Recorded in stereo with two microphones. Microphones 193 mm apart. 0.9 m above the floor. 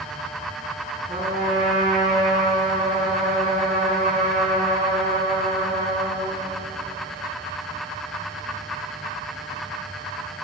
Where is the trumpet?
45° right (ahead or behind), 6 m.